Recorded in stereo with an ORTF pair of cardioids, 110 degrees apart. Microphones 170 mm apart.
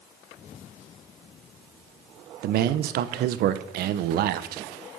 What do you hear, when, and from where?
2.4 s a man speaking: 70° right, 0.8 m